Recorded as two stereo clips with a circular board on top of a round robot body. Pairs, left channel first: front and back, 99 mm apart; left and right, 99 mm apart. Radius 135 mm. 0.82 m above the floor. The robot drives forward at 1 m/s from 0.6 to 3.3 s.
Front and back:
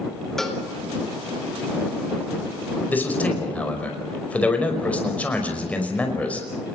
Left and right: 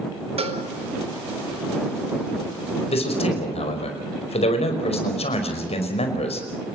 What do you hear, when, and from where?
0.4 s a cowbell: 85° right, 3.5 m
2.9 s a man speaking: 75° left, 5.5 m; by 6.8 s 80° left, 5 m